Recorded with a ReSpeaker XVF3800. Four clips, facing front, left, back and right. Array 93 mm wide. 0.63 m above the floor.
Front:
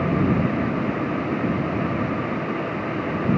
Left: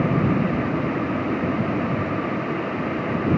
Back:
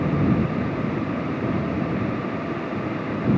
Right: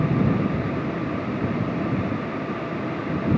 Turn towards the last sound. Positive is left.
No sound to turn to.